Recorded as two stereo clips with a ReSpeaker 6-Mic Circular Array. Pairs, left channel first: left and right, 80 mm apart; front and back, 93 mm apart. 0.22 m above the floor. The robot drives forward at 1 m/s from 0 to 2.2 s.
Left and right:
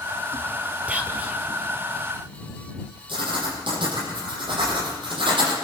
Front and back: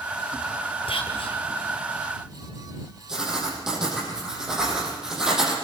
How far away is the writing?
About 8.5 m.